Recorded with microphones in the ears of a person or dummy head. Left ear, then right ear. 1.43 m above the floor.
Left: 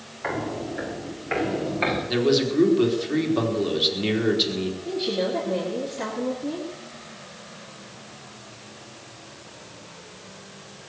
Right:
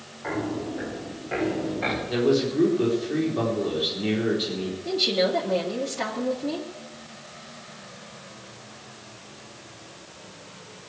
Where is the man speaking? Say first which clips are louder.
Even; 30° left (ahead or behind), 4.5 m.